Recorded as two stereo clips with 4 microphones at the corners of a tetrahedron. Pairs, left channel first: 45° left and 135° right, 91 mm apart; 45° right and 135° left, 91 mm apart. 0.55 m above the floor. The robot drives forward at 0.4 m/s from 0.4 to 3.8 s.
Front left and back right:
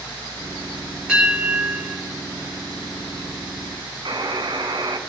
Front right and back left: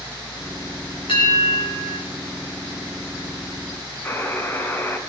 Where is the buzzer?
105° right, 1.9 m.